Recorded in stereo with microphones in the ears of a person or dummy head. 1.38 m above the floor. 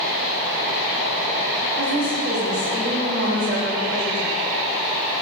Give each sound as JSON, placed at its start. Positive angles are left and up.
{"t": 1.8, "sound": "a woman speaking", "side_deg": -60, "distance_m": 3.5}